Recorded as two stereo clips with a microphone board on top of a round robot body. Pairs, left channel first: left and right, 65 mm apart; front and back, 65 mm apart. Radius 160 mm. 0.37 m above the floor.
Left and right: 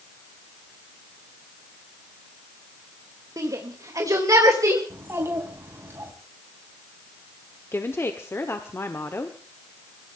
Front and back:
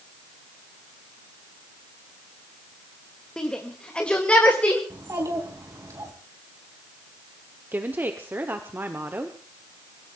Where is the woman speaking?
130° left, 1.6 m.